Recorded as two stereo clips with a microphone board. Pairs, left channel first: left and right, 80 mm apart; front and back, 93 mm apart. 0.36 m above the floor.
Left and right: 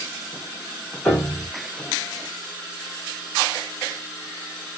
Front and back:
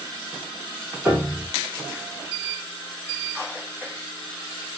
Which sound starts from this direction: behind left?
A piano, at 1.1 s.